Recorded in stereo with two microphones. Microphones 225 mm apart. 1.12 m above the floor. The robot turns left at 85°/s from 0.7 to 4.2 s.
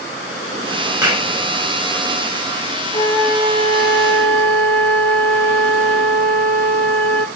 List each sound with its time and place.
1.0 s a clap: 15° right (ahead or behind), 5.5 m; by 1.3 s 40° right (ahead or behind), 5.5 m
2.9 s a flute: 30° left, 1.9 m; by 7.3 s 80° right, 1.9 m